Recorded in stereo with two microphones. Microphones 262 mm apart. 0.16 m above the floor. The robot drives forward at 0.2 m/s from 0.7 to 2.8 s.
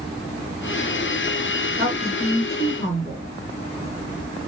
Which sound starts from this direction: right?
A woman speaking, at 1.8 s.